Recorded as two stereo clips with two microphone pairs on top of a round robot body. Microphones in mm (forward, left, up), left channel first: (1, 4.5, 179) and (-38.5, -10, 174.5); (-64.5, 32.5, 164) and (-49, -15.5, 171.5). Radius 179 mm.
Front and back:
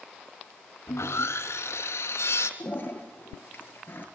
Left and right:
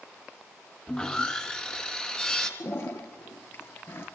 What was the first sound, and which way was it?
Sawing, 30° left.